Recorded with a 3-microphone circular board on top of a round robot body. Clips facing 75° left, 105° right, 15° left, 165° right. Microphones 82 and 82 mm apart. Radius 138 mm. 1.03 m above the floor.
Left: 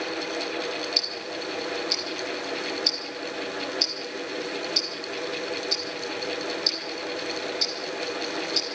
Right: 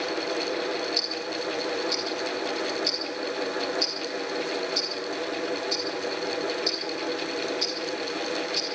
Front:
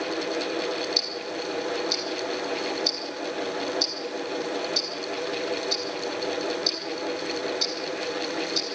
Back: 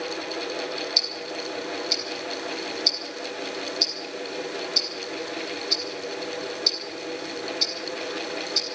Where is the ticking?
60° left, 1.0 m.